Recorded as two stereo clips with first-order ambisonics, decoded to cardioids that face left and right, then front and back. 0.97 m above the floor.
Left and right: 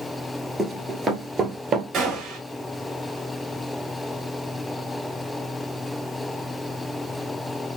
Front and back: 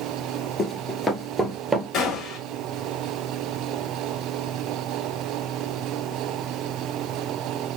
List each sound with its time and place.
0.6 s running footsteps: 25° right, 1.0 m; by 1.8 s 115° right, 1.0 m
1.9 s a gunshot: 40° right, 1.4 m